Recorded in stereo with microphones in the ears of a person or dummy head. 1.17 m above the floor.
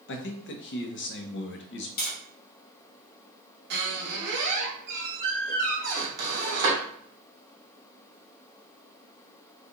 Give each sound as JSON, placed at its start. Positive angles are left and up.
{"t": 0.1, "sound": "a man speaking", "side_deg": 55, "distance_m": 0.5}
{"t": 2.0, "sound": "tapping", "side_deg": 50, "distance_m": 1.2}
{"t": 3.7, "sound": "a squeak", "side_deg": -55, "distance_m": 0.7}